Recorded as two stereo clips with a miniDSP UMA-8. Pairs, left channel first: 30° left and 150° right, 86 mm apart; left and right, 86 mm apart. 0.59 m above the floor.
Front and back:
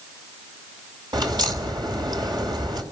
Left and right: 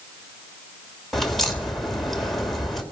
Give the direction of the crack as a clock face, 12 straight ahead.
6 o'clock.